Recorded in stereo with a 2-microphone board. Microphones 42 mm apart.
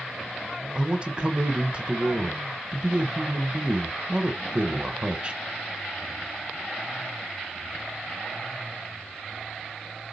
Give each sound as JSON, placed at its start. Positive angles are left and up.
{"t": 0.8, "sound": "a man speaking", "side_deg": -25, "distance_m": 1.0}